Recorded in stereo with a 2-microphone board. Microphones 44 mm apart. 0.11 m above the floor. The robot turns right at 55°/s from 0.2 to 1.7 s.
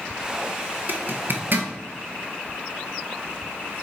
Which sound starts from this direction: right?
A zipper, at 0.9 s.